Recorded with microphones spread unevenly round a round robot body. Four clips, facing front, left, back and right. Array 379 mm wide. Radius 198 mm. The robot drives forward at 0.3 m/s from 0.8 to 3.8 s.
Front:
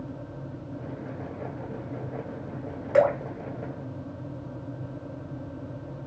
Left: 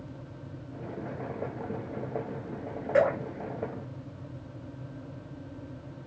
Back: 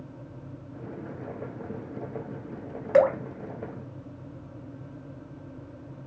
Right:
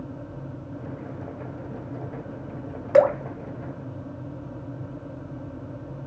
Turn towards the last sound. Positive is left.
turn(degrees=-135)